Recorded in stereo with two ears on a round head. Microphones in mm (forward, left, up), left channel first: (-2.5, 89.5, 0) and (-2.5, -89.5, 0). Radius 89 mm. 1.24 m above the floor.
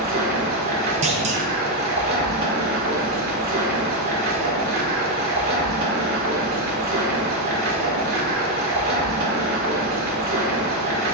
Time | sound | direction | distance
0.0 | running water | 50° right (ahead or behind) | 1.9 m
1.0 | a clunk | 35° right (ahead or behind) | 0.9 m